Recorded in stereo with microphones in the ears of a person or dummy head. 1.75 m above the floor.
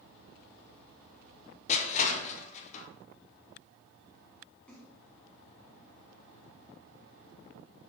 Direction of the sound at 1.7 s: 50° left (ahead or behind).